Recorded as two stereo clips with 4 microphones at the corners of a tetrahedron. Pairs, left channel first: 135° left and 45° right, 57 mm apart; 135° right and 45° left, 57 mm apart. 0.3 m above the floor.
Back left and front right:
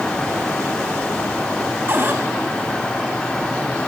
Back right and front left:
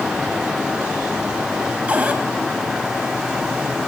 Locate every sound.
1.9 s a cupboard door: 10° right, 1.5 m